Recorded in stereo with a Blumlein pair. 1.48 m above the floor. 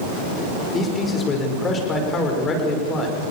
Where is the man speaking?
20° left, 5.5 m.